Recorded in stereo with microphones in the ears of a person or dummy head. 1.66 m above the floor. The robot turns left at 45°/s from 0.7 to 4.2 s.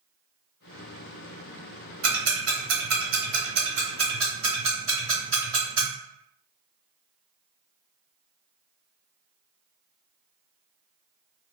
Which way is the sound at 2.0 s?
70° right (ahead or behind).